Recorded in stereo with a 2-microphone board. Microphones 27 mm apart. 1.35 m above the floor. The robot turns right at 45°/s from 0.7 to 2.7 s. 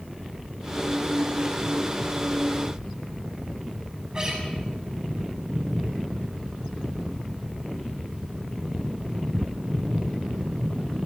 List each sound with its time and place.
4.1 s a guitar: 30° right (ahead or behind), 7 m